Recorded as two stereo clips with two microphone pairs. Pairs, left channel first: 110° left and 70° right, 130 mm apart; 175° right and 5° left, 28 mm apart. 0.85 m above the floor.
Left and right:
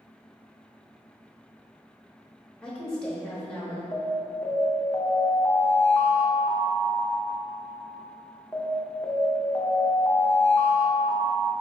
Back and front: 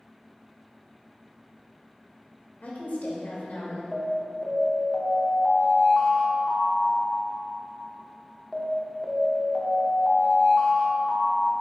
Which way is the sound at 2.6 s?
170° right.